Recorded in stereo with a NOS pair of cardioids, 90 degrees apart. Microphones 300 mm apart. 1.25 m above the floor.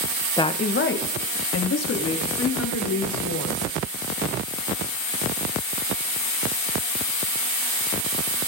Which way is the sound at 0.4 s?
10° left.